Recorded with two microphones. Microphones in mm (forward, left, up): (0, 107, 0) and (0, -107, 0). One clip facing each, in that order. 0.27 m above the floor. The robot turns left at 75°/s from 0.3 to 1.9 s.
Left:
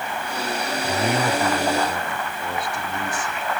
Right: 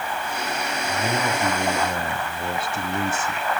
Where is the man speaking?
45° left, 1.6 m; by 3.5 s 35° right, 1.6 m.